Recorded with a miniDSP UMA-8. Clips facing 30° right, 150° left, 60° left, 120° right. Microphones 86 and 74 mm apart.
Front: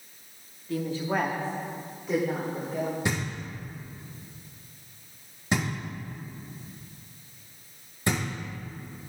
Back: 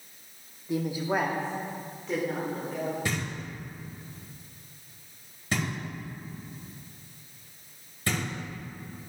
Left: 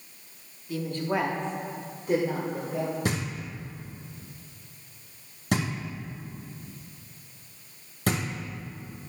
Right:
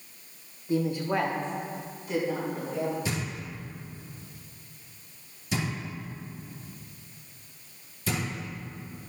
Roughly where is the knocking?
Ahead left.